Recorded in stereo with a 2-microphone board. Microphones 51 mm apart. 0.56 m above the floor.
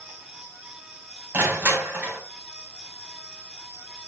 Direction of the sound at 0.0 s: 55° right (ahead or behind).